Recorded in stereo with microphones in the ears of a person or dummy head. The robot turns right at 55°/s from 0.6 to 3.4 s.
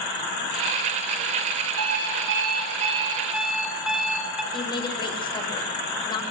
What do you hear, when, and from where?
1.8 s an alarm clock: 95° right, 7 m; by 4.4 s 5° right, 7 m
4.5 s a woman speaking: 25° left (ahead or behind), 7 m